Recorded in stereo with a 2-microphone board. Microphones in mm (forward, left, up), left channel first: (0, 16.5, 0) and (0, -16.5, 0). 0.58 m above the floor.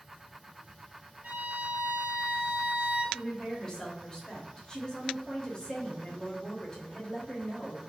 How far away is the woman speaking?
About 0.7 m.